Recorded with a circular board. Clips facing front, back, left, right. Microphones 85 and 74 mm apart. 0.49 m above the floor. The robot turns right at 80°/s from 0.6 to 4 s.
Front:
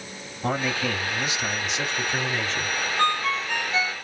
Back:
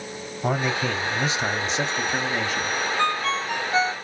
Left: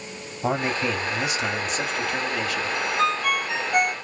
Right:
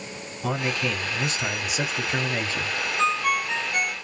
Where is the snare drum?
I don't hear a snare drum.